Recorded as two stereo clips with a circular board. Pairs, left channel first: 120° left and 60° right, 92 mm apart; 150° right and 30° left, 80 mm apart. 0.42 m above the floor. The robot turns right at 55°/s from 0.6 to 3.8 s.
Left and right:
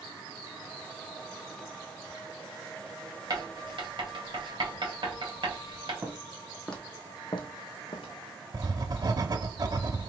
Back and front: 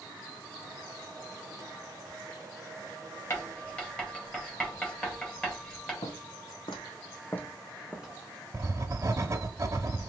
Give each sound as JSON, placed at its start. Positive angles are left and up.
{"t": 3.3, "sound": "writing", "azimuth_deg": -100, "distance_m": 2.5}
{"t": 6.0, "sound": "footsteps", "azimuth_deg": -130, "distance_m": 1.9}
{"t": 8.5, "sound": "writing", "azimuth_deg": -20, "distance_m": 0.7}